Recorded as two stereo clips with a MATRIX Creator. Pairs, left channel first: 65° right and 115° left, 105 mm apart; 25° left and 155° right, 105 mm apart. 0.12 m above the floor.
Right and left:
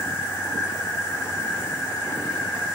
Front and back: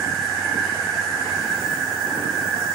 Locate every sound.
0.0 s an insect: 65° right, 1.4 m